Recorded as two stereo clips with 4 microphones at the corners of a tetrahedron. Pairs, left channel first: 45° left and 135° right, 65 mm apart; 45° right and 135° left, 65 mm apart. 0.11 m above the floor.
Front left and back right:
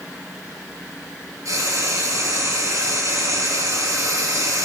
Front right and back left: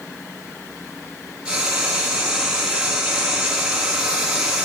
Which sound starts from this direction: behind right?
Frying, at 1.4 s.